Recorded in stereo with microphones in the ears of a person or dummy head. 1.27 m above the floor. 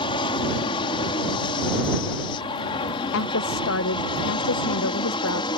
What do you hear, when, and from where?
0.0 s an aircraft: 30° left (ahead or behind)
3.1 s a woman speaking: 70° left (ahead or behind)